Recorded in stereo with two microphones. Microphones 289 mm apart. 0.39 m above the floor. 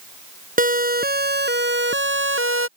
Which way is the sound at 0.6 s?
30° right (ahead or behind).